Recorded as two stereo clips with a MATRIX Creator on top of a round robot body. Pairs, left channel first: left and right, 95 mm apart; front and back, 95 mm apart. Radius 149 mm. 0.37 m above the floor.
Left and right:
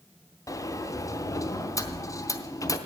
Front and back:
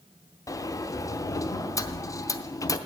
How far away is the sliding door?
About 0.9 m.